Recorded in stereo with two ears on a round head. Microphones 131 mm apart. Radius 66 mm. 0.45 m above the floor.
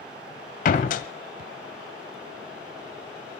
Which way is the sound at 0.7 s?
55° left (ahead or behind).